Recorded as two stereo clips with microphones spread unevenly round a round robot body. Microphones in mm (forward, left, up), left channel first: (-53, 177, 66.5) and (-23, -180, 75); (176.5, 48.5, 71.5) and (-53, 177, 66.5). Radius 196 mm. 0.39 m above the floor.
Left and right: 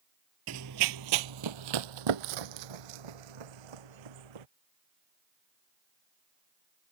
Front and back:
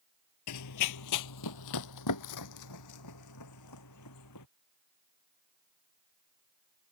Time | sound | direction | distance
0.5 | running footsteps | 35° right | ?